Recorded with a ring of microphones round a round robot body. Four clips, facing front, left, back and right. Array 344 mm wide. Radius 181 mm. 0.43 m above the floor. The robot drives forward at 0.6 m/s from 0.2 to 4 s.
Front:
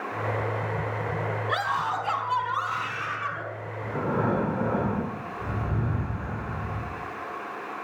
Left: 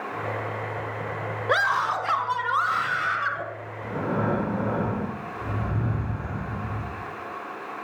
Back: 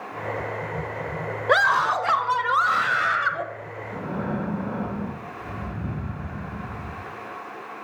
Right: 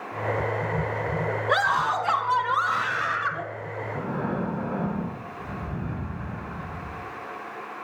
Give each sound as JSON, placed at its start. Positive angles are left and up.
{"t": 1.5, "sound": "a scream", "azimuth_deg": 175, "distance_m": 2.0}
{"t": 3.8, "sound": "breathing", "azimuth_deg": 65, "distance_m": 7.5}